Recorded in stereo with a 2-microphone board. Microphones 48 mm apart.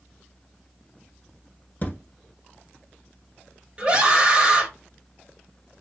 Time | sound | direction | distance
1.8 | a thud | 35° left (ahead or behind) | 0.8 m
3.8 | a scream | 25° right (ahead or behind) | 0.9 m